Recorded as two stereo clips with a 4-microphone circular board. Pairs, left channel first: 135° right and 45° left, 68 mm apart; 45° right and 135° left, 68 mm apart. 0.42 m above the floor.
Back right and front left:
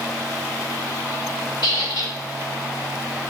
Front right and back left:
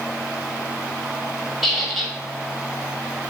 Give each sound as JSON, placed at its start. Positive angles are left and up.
{"t": 1.6, "sound": "a squeak", "azimuth_deg": -135, "distance_m": 0.8}